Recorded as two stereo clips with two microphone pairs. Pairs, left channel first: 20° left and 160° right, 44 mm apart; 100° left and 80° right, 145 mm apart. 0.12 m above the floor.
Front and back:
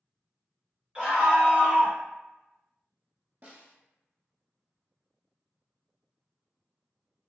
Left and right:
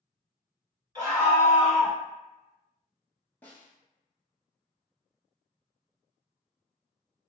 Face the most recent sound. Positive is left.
turn(degrees=170)